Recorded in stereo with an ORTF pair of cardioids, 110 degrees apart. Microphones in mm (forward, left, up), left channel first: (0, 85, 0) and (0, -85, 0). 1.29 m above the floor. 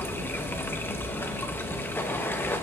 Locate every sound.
0.0 s running water: 15° left, 1.0 m